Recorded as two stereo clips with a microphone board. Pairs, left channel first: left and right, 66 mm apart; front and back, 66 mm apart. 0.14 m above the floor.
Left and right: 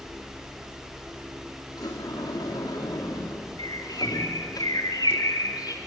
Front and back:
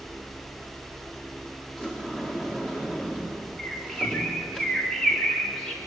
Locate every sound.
1.8 s a sliding door: 80° left, 4.5 m
3.6 s a bird: 80° left, 2.5 m